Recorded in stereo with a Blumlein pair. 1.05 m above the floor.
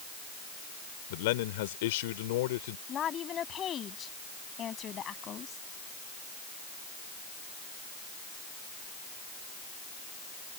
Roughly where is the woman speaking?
Ahead left.